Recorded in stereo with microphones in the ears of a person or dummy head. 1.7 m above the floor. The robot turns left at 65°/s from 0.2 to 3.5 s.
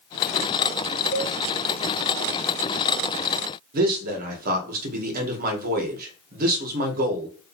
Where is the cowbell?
40° left (ahead or behind), 0.8 m; by 1.3 s 55° left (ahead or behind), 0.8 m.